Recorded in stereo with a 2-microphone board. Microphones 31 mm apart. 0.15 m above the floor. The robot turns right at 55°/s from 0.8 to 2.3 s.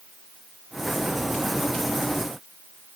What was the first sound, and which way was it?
Only background noise.